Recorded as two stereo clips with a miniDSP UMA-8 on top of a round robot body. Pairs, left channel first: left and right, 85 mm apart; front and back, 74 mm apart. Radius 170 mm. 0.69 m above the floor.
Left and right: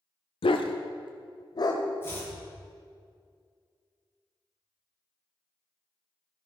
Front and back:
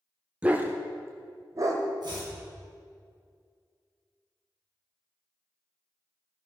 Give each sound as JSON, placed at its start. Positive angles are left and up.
{"t": 0.4, "sound": "a dog barking", "azimuth_deg": 105, "distance_m": 1.0}
{"t": 2.0, "sound": "chopping", "azimuth_deg": 155, "distance_m": 6.0}